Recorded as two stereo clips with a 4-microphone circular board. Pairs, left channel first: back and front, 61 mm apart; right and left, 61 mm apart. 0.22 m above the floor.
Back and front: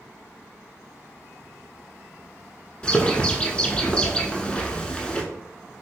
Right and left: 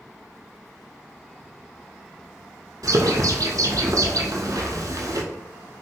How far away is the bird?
About 0.6 m.